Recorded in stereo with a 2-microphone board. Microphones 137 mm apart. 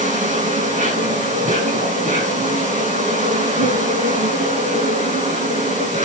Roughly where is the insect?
Right.